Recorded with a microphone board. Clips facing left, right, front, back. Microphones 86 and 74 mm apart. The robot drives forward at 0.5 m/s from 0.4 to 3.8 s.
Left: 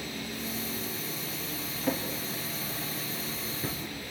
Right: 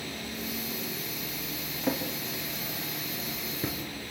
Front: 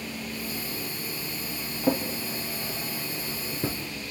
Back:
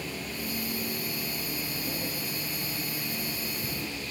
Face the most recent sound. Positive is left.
turn(degrees=-25)